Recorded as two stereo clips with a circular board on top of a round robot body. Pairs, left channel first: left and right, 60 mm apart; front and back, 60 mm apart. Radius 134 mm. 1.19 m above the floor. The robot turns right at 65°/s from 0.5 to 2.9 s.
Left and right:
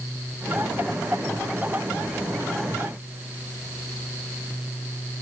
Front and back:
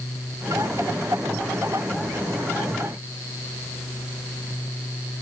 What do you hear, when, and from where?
Only background noise.